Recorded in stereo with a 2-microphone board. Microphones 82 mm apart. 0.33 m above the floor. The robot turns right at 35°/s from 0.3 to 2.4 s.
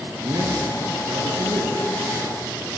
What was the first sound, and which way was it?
A man speaking, 130° right.